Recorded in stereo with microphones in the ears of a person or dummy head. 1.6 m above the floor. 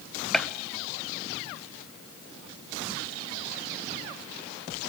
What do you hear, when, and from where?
0.3 s a gunshot: 5° left (ahead or behind), 0.9 m